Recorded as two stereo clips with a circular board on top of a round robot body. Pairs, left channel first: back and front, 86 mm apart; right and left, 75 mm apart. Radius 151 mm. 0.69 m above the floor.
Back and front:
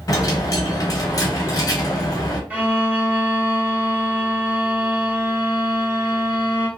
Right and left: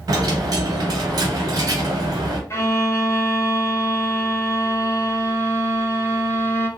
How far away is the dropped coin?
About 0.8 m.